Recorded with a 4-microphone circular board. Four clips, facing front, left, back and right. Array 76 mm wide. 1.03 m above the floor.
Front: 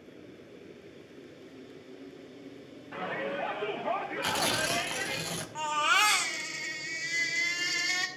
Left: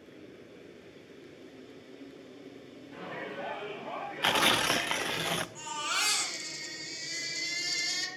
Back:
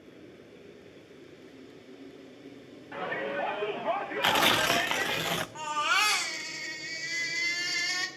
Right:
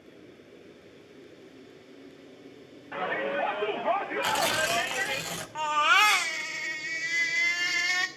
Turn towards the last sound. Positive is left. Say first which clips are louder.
# right 12 dB, front 3 dB
turn(degrees=-85)